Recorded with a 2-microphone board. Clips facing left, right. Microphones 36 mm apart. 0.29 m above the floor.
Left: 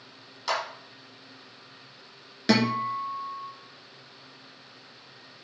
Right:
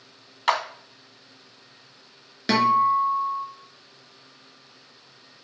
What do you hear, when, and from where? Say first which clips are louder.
0.5 s a clap: right 6 dB; 55° right (ahead or behind), 1.5 m
2.5 s a guitar: right 6 dB; 5° right (ahead or behind), 3 m